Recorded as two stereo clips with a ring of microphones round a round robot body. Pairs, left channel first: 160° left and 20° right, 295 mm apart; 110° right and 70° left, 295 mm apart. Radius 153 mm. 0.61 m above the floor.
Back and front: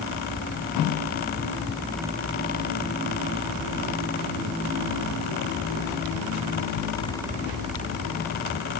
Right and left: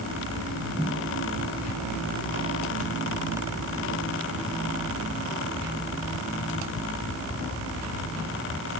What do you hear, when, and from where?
Only background noise.